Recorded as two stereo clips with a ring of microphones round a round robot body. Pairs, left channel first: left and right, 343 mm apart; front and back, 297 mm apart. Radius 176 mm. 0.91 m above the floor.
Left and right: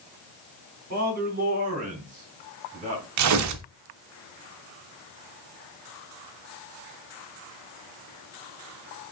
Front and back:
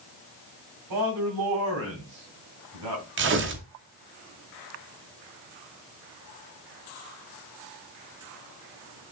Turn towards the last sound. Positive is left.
turn(degrees=-130)